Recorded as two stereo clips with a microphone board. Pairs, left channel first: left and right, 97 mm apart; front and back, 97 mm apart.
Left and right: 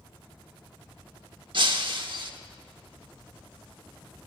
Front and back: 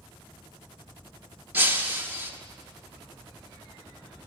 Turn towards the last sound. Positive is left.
turn(degrees=-115)